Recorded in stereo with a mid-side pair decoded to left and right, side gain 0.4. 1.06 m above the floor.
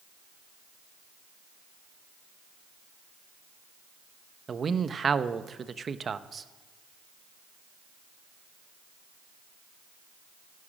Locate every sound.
4.5 s a man speaking: 45° right, 0.9 m